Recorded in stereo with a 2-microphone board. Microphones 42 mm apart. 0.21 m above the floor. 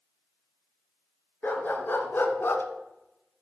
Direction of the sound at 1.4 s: 50° left (ahead or behind).